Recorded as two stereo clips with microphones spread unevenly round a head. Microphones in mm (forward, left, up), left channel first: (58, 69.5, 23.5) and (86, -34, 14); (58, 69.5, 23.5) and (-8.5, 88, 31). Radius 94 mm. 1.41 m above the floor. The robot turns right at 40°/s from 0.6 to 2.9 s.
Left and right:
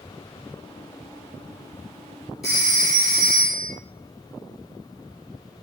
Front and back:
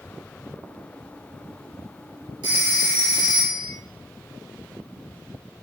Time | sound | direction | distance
2.4 | a phone ringing | 165° right | 1.9 m